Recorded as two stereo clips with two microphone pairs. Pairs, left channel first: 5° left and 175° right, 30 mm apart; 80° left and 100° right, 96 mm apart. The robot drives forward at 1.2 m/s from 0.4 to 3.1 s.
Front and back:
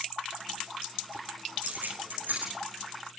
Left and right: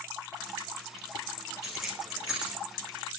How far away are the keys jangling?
About 8 m.